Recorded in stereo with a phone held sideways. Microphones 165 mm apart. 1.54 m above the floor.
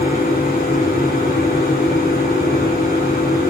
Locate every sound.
0.0 s a machine running: 70° left (ahead or behind), 5.5 m